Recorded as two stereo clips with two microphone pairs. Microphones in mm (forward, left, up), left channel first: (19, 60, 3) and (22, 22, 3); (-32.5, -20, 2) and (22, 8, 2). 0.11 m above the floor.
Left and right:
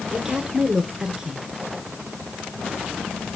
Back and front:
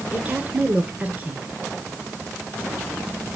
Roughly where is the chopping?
No chopping in this recording.